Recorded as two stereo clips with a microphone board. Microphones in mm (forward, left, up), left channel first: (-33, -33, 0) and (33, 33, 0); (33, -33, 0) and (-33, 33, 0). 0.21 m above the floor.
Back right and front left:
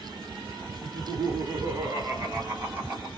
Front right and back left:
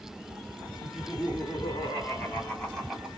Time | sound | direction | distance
0.8 | laughter | 10° right | 2.5 m